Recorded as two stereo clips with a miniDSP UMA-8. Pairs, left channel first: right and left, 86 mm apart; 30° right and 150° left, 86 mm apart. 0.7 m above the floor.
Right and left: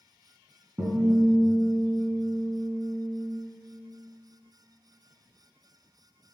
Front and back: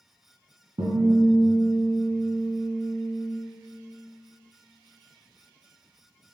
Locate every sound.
0.8 s a guitar: 150° left, 3 m